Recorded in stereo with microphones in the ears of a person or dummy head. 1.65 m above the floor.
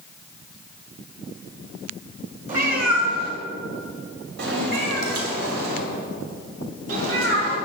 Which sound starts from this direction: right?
A cat meowing, at 2.5 s.